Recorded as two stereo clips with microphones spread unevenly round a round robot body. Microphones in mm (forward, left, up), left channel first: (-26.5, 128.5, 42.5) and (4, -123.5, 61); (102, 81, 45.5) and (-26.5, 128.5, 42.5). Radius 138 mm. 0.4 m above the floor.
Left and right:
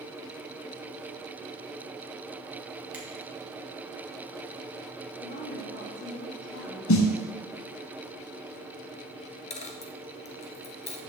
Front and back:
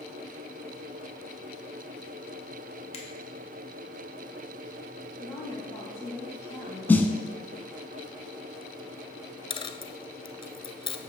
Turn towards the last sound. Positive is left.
turn(degrees=30)